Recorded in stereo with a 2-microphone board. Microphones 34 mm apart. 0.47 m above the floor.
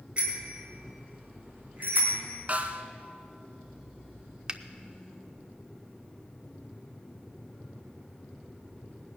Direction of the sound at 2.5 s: 45° right (ahead or behind).